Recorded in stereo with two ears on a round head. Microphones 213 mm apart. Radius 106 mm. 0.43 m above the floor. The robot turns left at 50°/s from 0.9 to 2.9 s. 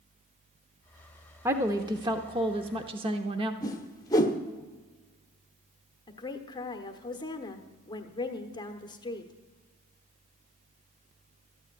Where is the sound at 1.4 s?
10° right (ahead or behind), 0.7 m; by 3.5 s 25° right (ahead or behind), 0.7 m.